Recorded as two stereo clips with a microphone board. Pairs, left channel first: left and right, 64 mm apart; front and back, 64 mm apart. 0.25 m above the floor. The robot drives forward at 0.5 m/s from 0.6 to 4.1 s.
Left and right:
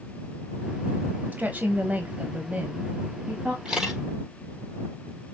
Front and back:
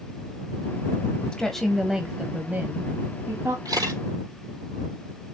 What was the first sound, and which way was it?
A woman speaking, 65° right.